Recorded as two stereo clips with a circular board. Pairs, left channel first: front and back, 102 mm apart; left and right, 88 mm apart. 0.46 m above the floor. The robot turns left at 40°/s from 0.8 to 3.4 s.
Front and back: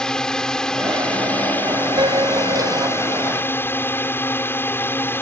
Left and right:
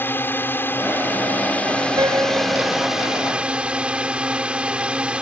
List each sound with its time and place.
0.0 s a drone: 75° left; by 5.2 s 30° right
2.0 s a piano: 135° right; by 3.0 s 175° right